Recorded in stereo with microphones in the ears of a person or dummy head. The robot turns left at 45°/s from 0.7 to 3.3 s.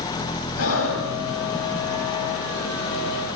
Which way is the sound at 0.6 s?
85° left.